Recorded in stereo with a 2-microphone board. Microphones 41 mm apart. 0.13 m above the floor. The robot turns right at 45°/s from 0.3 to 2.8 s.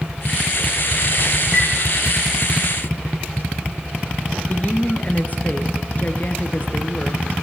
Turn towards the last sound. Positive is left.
turn(degrees=35)  # may be behind; listen again after turning